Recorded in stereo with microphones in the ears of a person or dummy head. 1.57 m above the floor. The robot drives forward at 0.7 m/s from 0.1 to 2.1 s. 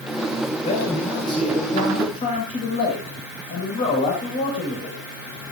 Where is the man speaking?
30° left (ahead or behind), 5.5 m; by 5.0 s 25° left (ahead or behind), 6.5 m.